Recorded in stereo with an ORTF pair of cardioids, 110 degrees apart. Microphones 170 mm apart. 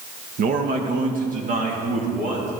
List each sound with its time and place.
0.4 s a man speaking: 60° right, 1.3 m; by 2.5 s 50° right, 3 m